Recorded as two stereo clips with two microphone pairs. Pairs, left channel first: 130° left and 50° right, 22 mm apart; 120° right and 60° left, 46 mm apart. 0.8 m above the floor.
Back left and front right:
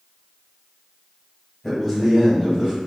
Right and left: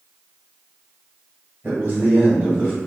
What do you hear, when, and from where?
1.6 s a man speaking: 50° left, 1.1 m; by 2.7 s 5° right, 1.3 m